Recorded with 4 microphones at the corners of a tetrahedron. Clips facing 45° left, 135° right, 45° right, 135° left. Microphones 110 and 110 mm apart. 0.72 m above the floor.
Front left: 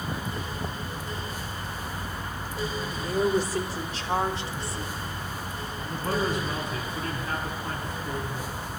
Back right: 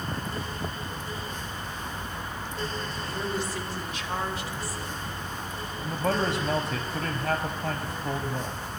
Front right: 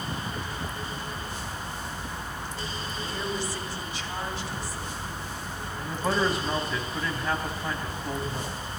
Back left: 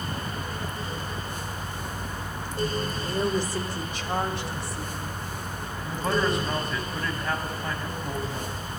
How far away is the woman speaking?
About 2.5 m.